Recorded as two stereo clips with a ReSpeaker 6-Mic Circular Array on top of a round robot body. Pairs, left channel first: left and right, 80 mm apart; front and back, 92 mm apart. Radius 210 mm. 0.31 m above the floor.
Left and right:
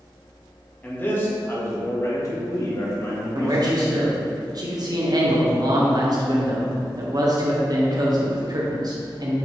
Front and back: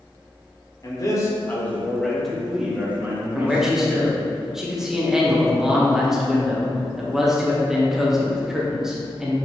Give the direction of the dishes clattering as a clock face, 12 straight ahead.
No dishes clattering in this recording.